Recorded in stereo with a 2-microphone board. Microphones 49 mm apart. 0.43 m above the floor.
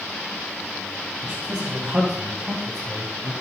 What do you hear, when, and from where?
1.2 s a man speaking: 35° right (ahead or behind), 3 m; by 3.3 s 70° right (ahead or behind), 3 m